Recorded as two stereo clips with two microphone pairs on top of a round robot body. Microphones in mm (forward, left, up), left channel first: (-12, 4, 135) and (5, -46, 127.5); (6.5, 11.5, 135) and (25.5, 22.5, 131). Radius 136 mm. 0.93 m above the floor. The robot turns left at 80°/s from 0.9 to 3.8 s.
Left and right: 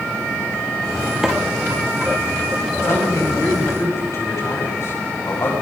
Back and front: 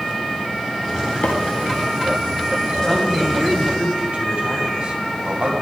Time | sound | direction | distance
1.2 | a microwave | 150° right | 2 m
2.8 | a man speaking | 150° left | 5.5 m